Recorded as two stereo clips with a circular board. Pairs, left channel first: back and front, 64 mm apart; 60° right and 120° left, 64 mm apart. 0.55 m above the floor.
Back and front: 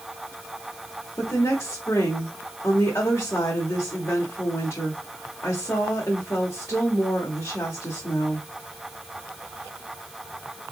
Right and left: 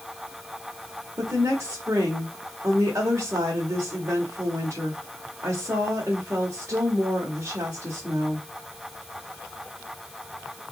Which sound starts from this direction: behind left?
A woman speaking, at 1.2 s.